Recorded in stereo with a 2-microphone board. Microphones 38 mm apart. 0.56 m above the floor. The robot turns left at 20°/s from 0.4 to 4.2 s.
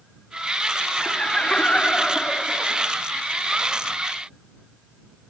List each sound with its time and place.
1.0 s laughter: 75° left; by 2.9 s 35° left